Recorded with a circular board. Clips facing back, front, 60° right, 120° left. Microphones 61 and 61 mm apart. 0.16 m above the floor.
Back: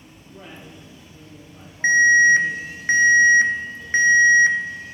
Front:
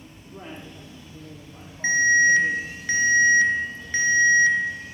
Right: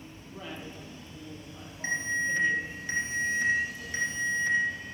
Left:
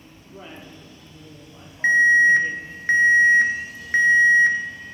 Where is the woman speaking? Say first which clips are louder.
Front 2 dB, left 1 dB; 50° left, 4.5 m.